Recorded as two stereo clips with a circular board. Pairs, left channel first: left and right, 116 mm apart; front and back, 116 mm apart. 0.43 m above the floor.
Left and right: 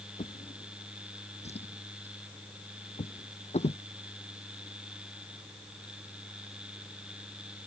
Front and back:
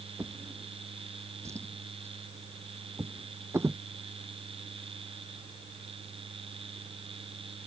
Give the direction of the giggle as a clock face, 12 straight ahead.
I don't hear a giggle.